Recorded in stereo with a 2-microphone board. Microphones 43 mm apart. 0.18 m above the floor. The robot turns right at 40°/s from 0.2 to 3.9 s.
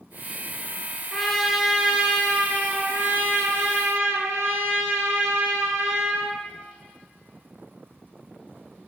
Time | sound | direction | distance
1.1 | a trumpet | 175° left | 0.7 m